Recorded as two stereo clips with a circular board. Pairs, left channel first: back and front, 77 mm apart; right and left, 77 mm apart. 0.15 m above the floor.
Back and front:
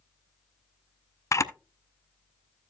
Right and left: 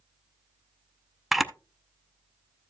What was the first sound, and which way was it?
A camera shutter, 175° left.